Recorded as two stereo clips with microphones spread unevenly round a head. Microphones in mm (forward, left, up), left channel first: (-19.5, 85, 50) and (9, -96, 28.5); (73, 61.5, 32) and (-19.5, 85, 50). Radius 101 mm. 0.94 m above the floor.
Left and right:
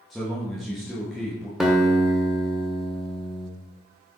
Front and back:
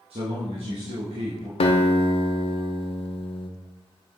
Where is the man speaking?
170° right, 1.4 m.